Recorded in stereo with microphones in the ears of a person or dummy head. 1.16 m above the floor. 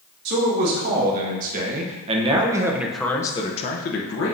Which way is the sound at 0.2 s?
55° right (ahead or behind).